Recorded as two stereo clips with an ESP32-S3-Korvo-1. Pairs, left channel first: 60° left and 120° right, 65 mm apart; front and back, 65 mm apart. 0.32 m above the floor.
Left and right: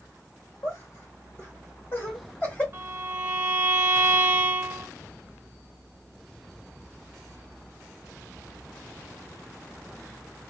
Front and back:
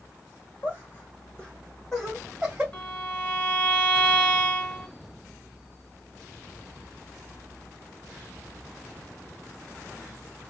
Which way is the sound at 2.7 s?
65° right.